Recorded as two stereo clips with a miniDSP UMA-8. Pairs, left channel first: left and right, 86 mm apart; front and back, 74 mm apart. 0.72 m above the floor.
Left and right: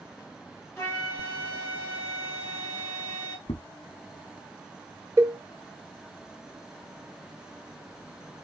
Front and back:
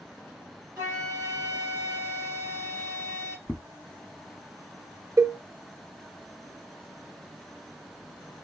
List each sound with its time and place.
0.8 s a flute: 150° left, 1.7 m
3.5 s footsteps: 90° left, 1.7 m
5.2 s a cowbell: 140° right, 0.5 m